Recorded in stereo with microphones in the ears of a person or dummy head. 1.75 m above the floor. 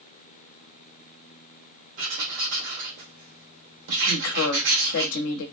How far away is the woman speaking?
About 0.7 m.